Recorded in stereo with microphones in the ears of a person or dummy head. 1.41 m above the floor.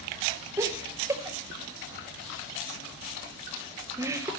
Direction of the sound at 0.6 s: 15° right (ahead or behind).